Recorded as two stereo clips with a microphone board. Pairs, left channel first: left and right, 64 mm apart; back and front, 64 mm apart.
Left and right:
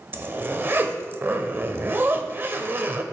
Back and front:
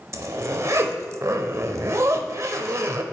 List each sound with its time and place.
0.1 s a zipper: 35° right, 0.6 m